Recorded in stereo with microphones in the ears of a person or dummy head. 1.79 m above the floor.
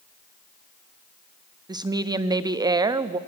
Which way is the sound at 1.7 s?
20° right (ahead or behind).